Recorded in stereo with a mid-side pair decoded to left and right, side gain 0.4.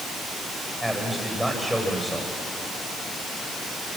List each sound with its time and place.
0.8 s a man speaking: 5° right, 10 m